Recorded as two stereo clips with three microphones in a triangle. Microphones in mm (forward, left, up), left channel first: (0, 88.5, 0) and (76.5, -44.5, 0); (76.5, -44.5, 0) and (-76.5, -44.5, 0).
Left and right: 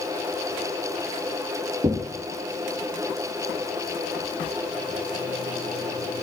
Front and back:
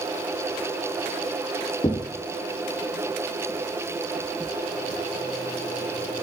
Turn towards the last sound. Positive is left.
turn(degrees=-30)